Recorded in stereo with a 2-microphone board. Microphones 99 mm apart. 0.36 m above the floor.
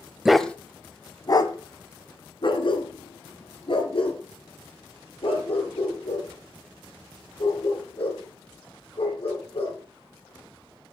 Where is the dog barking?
5° right (ahead or behind), 0.7 m; by 9.8 s 70° left (ahead or behind), 7.5 m.